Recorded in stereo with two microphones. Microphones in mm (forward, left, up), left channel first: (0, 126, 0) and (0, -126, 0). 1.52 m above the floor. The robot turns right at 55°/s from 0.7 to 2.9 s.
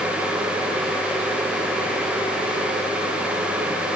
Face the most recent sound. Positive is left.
No sound to turn to.